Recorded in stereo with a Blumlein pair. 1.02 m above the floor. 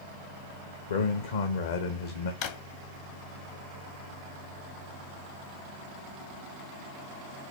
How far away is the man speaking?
About 0.7 m.